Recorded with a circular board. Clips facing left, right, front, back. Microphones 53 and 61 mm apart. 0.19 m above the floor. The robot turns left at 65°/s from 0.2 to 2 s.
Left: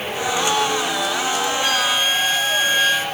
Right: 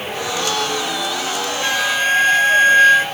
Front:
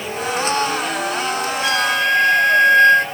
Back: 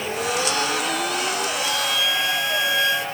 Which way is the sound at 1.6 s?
15° right.